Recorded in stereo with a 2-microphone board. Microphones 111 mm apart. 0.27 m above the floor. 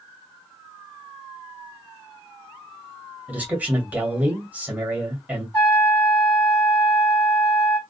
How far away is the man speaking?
About 1.4 m.